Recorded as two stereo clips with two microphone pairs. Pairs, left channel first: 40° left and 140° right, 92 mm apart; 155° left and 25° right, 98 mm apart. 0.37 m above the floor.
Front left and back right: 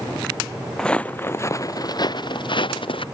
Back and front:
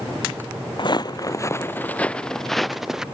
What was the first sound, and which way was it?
Footsteps, 125° left.